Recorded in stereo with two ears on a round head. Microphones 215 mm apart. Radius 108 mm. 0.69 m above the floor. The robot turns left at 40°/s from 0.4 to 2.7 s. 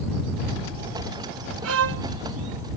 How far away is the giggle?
I don't hear a giggle.